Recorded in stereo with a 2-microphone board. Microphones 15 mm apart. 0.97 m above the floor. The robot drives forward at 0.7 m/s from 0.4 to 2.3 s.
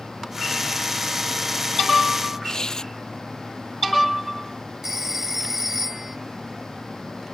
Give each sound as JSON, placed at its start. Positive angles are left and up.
{"t": 2.4, "sound": "tearing paper", "side_deg": 40}
{"t": 4.8, "sound": "a phone ringing", "side_deg": -20}